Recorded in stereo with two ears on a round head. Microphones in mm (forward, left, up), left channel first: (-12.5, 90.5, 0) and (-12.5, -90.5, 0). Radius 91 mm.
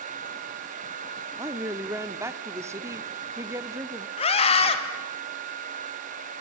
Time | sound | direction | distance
1.4 | a woman speaking | 15° right (ahead or behind) | 1.3 m
4.2 | a scream | 30° left (ahead or behind) | 3 m